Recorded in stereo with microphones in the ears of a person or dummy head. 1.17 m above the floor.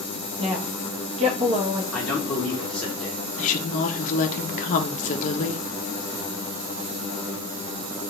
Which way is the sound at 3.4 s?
50° left (ahead or behind).